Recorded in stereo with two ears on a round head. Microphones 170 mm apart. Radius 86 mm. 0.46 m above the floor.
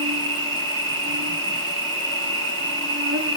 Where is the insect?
65° right (ahead or behind), 1.3 m.